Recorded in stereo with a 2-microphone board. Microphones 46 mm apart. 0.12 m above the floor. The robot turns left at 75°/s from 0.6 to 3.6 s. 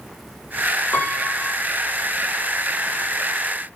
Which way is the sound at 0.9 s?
60° left.